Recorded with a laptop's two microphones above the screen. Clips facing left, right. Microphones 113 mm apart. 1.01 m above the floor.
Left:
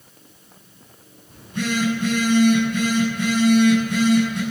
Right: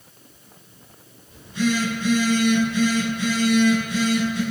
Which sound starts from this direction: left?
A phone buzzing, at 1.3 s.